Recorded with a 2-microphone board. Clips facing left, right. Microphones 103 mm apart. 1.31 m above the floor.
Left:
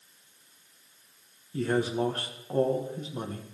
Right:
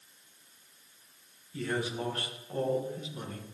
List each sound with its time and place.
1.5 s a man speaking: 35° left (ahead or behind), 1.6 m